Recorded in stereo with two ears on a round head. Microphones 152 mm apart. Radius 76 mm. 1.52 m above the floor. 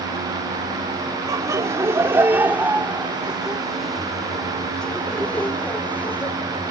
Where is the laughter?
20° right (ahead or behind); by 6.3 s 15° left (ahead or behind).